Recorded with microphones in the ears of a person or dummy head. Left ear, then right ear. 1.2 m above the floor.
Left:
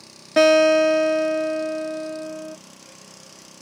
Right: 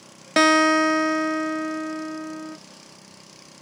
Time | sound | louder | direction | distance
0.4 | a guitar | left 3 dB | 50° right (ahead or behind) | 0.9 m